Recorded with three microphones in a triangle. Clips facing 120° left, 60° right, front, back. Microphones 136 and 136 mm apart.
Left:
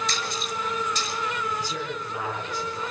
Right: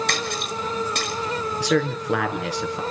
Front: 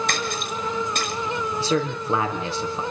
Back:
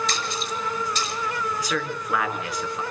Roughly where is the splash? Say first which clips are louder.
Right 4 dB, front 2 dB; ahead right.